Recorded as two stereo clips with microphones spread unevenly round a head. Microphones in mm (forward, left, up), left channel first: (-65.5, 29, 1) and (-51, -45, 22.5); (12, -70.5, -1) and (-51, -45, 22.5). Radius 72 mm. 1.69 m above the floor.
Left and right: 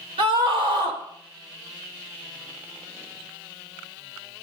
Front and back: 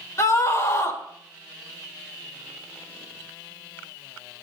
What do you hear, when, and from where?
0.2 s a scream: 70° right, 4.5 m